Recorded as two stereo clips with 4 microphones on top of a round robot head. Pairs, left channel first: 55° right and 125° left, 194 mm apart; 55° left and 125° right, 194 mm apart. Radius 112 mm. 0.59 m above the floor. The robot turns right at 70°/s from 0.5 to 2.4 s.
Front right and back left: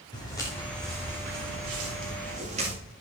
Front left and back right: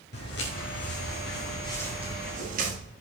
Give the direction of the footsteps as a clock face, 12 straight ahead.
11 o'clock.